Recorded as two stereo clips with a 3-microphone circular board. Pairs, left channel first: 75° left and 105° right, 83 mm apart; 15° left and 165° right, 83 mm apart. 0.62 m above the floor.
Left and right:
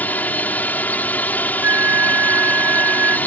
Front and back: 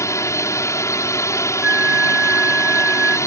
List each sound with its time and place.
0.0 s a drone: 20° left
1.6 s a flute: 110° right